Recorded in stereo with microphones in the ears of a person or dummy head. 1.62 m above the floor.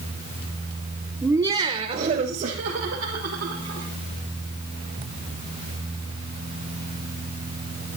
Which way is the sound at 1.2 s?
5° right (ahead or behind).